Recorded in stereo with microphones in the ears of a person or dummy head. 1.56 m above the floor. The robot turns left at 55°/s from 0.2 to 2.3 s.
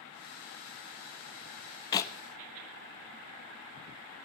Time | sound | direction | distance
1.9 | a clap | 25° left (ahead or behind) | 1.3 m